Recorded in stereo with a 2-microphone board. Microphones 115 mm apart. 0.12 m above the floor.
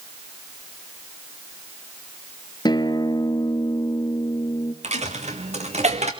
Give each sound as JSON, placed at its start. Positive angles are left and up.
{"t": 2.6, "sound": "a guitar", "side_deg": 40, "distance_m": 1.4}
{"t": 4.8, "sound": "a dropped coin", "side_deg": -75, "distance_m": 2.0}